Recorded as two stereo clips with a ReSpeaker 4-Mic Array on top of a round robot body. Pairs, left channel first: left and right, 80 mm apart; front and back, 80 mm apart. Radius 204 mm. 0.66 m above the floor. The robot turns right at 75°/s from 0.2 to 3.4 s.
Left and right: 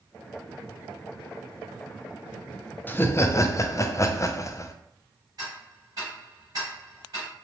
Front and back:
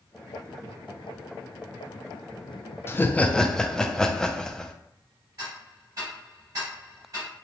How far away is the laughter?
About 0.5 m.